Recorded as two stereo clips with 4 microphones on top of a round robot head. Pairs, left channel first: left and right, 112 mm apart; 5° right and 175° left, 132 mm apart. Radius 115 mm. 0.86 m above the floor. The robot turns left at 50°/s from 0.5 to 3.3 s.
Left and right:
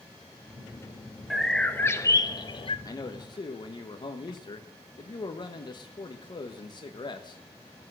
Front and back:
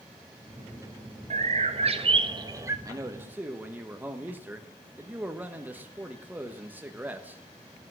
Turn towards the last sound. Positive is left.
turn(degrees=105)